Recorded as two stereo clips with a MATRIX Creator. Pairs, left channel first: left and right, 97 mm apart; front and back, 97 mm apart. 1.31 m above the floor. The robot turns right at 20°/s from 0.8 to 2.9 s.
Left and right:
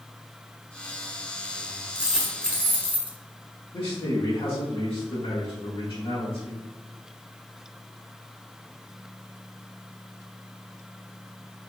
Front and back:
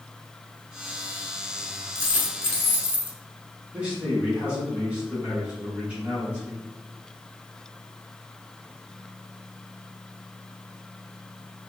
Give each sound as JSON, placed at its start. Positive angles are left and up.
{"t": 1.9, "sound": "a dropped coin", "azimuth_deg": -165, "distance_m": 1.3}
{"t": 3.7, "sound": "a man speaking", "azimuth_deg": 105, "distance_m": 1.9}